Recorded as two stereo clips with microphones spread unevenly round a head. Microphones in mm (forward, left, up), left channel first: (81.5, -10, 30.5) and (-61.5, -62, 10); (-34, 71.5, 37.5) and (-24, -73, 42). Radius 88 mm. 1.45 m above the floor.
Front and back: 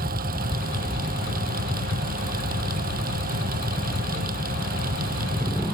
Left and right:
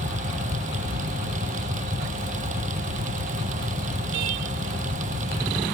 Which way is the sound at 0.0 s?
125° right.